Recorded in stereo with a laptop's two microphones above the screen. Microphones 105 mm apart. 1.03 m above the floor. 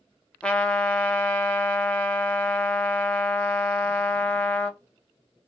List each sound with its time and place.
0.4 s a trumpet: 10° left (ahead or behind), 0.6 m